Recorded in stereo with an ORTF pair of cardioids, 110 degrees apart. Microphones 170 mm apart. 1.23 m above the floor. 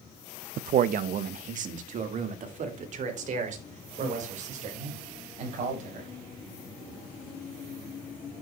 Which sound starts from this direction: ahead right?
A man speaking, at 0.6 s.